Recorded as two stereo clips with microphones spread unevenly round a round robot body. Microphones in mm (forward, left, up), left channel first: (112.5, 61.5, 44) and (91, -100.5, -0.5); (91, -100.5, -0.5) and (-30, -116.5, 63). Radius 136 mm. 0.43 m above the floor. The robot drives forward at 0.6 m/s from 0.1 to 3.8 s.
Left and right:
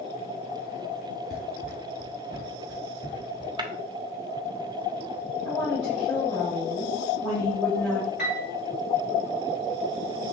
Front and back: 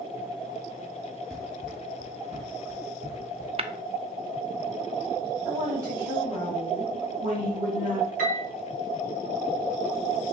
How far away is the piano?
About 0.9 m.